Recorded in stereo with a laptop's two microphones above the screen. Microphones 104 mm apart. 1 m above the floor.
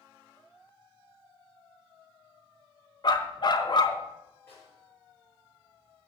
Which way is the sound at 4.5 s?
20° left (ahead or behind).